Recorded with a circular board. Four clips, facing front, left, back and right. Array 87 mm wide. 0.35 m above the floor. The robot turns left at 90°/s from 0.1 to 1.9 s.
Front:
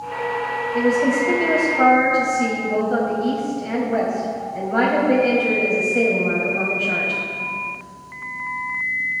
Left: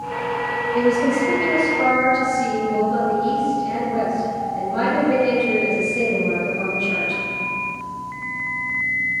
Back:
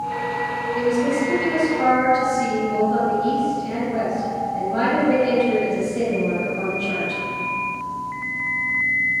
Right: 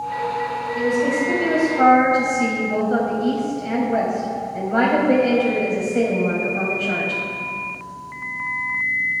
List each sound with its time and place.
0.7 s a woman speaking: 50° left, 2 m; by 7.2 s 50° right, 2 m